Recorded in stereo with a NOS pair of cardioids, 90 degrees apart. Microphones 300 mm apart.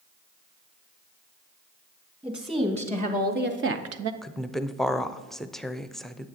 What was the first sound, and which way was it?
A woman speaking, 15° right.